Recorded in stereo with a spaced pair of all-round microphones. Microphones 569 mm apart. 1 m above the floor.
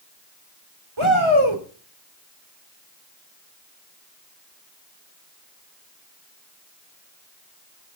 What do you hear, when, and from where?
1.0 s a shout: 50° right (ahead or behind), 3.5 m